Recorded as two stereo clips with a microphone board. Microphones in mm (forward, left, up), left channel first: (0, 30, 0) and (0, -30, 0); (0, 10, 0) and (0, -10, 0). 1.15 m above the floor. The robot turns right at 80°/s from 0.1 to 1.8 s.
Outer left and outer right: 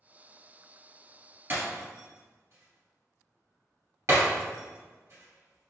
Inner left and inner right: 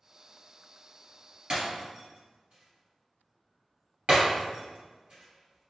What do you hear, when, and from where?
1.5 s breaking glass: 40° right (ahead or behind), 2.0 m; by 5.7 s 55° right (ahead or behind), 2.0 m